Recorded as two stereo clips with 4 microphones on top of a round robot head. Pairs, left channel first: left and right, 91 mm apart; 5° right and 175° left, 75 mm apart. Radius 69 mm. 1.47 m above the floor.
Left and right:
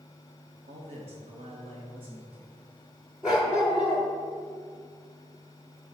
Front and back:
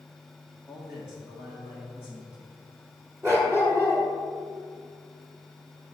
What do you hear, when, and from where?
0.7 s a man speaking: 100° right, 1.3 m; by 2.6 s 110° right, 2.5 m
3.2 s a dog barking: 145° right, 1.1 m